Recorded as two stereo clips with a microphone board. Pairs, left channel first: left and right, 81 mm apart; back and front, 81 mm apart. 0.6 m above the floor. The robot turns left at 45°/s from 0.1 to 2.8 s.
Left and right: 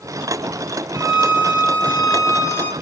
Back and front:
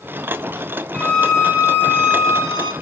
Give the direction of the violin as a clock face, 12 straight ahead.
8 o'clock.